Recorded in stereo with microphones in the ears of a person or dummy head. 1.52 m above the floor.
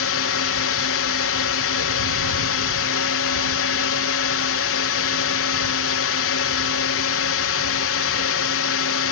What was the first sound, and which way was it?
A drone, 65° left (ahead or behind).